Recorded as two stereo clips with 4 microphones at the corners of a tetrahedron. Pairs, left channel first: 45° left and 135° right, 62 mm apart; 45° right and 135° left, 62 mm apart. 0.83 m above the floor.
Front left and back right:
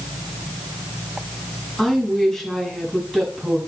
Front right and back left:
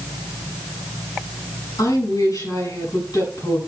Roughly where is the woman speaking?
Ahead right.